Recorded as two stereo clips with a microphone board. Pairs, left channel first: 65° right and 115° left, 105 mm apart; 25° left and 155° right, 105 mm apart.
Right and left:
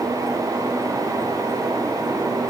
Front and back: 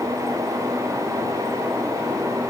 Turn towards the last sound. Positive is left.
No sound to turn to.